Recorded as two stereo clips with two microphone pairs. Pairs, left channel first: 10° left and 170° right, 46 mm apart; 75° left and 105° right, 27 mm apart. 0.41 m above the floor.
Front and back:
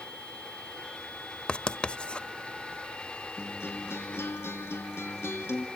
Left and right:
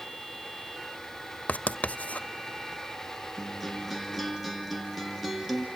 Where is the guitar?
10° right, 2.5 m.